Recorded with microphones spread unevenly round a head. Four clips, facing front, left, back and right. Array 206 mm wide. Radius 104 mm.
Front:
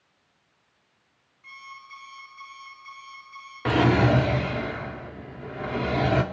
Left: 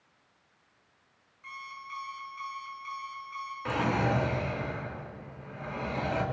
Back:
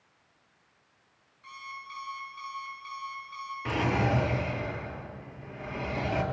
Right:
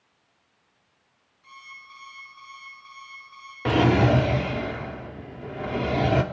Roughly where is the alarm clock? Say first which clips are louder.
Left 4 dB, back 2 dB; behind left.